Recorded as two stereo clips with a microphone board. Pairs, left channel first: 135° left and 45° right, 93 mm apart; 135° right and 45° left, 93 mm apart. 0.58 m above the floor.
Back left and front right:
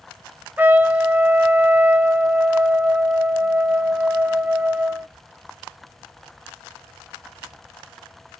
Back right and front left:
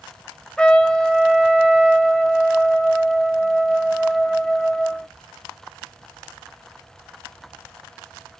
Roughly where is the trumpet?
Right.